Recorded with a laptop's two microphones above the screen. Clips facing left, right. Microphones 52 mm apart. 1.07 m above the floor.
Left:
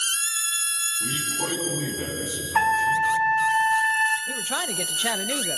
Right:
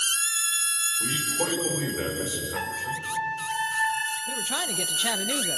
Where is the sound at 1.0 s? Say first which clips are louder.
Right 1 dB; 80° right, 4.5 m.